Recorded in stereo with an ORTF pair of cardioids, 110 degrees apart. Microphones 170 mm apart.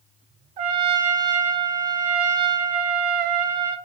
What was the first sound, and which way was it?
A trumpet, 65° right.